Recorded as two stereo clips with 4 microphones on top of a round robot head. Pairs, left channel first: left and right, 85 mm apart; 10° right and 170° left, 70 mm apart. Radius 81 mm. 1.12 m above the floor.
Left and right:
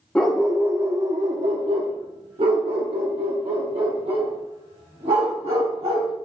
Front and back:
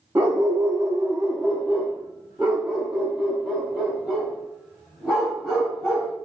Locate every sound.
0.1 s a dog barking: 155° left, 0.6 m; by 6.1 s 105° right, 3.5 m